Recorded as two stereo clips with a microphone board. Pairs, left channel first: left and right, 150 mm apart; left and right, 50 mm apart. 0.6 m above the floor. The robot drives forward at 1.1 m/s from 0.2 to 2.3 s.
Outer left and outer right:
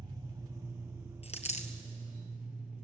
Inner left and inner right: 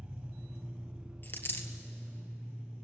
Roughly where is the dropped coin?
Left.